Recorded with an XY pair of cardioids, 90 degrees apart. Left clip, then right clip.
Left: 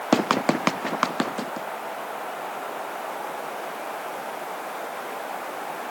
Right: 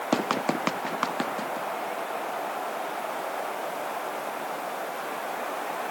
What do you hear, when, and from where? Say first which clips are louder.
0.1 s running footsteps: left 5 dB; 40° left